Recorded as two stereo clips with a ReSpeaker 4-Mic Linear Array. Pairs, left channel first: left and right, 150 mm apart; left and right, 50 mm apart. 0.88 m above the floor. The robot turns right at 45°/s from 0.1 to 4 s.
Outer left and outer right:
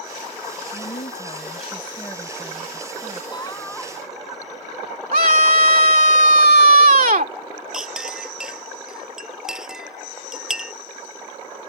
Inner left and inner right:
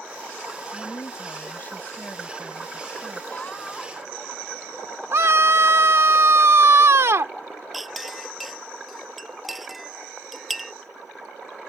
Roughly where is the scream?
Right.